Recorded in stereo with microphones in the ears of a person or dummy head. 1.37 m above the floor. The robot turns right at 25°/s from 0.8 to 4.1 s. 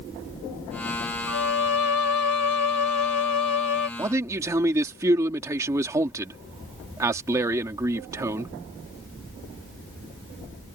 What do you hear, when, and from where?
1.3 s a violin: 55° left; by 3.9 s 120° left
4.0 s a man speaking: 15° right (ahead or behind)